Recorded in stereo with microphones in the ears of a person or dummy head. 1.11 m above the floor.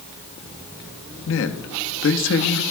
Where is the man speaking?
60° left (ahead or behind), 1.0 m.